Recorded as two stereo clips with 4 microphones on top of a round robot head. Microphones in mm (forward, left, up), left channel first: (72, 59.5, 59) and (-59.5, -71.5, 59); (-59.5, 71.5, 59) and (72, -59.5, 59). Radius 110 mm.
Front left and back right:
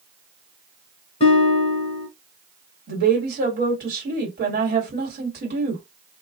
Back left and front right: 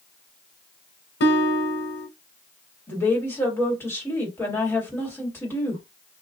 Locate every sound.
1.2 s a guitar: 105° left, 1.0 m
2.9 s a woman speaking: 150° right, 2 m